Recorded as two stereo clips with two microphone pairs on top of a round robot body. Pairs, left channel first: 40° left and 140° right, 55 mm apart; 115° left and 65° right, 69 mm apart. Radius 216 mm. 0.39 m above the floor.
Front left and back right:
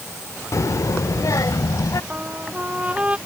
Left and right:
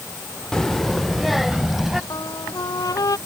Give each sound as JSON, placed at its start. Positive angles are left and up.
{"t": 0.5, "sound": "a child speaking", "azimuth_deg": 30}
{"t": 2.1, "sound": "a trumpet", "azimuth_deg": 155}